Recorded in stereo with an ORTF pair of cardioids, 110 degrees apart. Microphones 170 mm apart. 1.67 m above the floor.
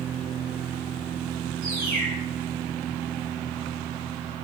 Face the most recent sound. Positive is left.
turn(degrees=-60)